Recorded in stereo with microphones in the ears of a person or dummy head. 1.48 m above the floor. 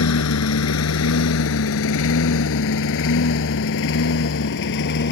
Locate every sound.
0.0 s a lawn mower: 70° left (ahead or behind); by 5.1 s 55° left (ahead or behind)